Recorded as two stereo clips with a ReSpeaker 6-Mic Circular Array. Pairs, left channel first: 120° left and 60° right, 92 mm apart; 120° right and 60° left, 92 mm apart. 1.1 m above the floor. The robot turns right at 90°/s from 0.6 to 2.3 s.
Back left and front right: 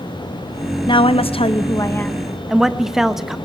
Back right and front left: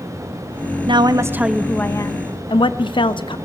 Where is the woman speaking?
85° left, 0.7 m; by 3.4 s 145° right, 0.7 m.